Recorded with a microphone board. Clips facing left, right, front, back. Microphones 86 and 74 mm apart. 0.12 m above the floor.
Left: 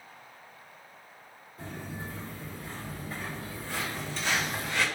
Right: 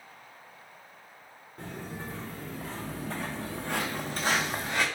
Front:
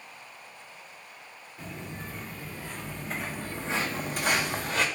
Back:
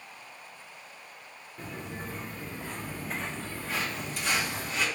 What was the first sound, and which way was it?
Footsteps, 125° right.